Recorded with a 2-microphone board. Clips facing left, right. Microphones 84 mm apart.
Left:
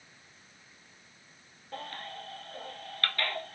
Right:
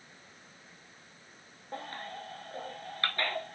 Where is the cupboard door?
No cupboard door in this recording.